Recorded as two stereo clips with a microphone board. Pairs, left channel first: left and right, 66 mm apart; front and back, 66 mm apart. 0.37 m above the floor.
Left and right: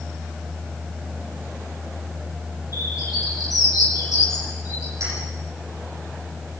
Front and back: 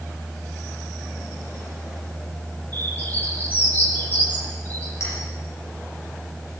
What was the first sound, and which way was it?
A bird, 60° left.